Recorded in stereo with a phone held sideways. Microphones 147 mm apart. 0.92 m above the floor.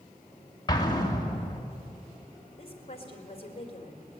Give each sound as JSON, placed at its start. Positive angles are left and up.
{"t": 0.7, "sound": "an explosion", "side_deg": 25, "distance_m": 2.5}
{"t": 2.6, "sound": "a woman speaking", "side_deg": 40, "distance_m": 4.0}